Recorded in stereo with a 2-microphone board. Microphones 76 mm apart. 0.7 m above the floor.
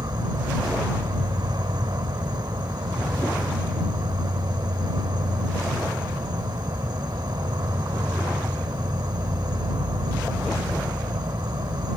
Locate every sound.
0.0 s an insect: 85° right